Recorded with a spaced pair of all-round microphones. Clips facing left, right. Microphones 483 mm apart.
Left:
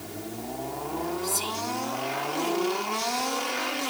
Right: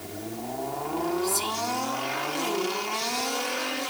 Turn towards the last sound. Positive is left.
turn(degrees=-20)  # may be behind; listen again after turning